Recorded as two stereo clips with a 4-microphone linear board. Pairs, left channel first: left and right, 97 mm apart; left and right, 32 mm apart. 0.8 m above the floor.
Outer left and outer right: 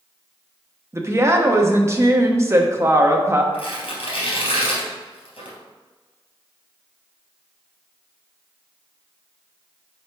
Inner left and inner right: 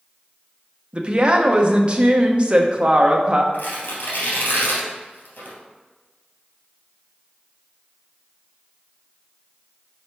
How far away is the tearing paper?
About 2.5 m.